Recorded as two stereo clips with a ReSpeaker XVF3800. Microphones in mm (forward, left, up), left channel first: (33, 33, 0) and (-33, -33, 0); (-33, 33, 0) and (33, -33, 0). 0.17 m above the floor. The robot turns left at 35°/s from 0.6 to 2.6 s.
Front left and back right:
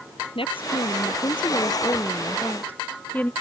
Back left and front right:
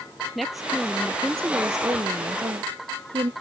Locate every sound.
0.3 s a woman speaking: 45° left; by 3.3 s 25° right